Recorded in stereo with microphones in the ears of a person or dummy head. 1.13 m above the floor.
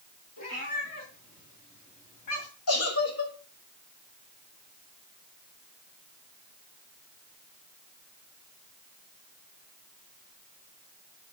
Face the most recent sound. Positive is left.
turn(degrees=80)